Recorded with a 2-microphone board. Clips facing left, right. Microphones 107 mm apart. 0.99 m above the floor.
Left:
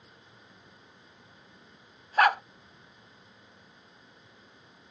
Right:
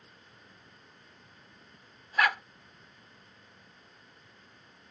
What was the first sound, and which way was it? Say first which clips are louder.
A dog barking: left 5 dB; 45° left (ahead or behind).